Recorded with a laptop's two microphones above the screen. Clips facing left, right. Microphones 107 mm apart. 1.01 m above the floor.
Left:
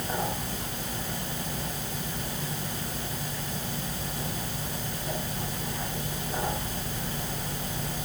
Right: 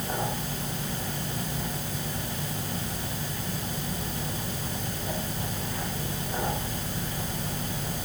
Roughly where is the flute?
No flute in this recording.